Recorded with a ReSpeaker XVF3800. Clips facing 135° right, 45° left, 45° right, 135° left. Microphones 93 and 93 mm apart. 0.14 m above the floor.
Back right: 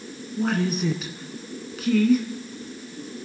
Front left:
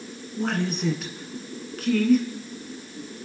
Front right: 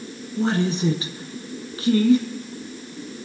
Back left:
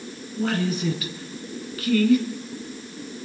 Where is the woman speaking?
50° right, 1.4 m.